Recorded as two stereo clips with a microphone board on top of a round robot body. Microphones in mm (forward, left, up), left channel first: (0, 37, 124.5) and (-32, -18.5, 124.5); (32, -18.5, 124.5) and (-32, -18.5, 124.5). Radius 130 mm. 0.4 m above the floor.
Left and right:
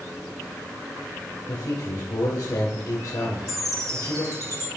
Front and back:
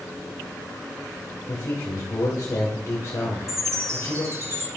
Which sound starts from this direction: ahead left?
A man speaking, at 1.5 s.